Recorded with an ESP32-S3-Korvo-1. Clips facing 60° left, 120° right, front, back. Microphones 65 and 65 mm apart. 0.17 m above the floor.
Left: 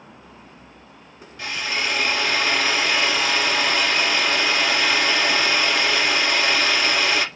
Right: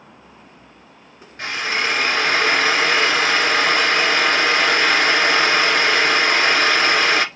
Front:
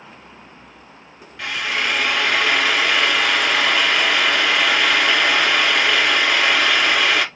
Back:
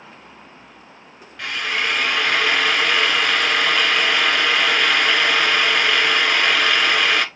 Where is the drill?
90° right, 1.4 m.